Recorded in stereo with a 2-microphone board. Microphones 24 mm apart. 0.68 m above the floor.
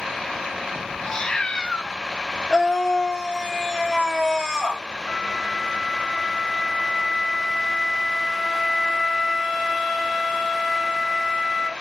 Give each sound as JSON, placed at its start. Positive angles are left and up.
{"t": 1.1, "sound": "a cat meowing", "side_deg": 30, "distance_m": 0.6}
{"t": 2.5, "sound": "a scream", "side_deg": -25, "distance_m": 2.0}
{"t": 5.1, "sound": "a flute", "side_deg": 5, "distance_m": 3.0}